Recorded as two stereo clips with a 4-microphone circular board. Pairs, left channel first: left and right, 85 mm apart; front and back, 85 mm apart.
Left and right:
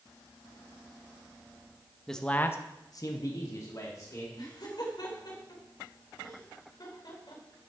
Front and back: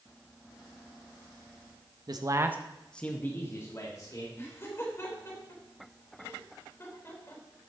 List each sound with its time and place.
2.1 s a man speaking: 175° left, 1.2 m; by 4.2 s 45° left, 3 m
4.3 s laughter: 55° left, 4 m